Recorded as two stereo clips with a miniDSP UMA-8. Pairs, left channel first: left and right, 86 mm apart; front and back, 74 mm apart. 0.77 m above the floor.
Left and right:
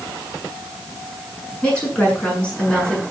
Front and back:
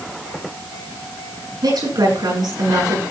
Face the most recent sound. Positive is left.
turn(degrees=165)